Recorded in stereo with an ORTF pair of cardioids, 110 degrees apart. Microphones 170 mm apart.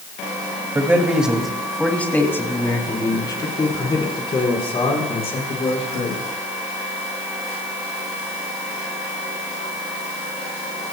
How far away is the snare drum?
I don't hear a snare drum.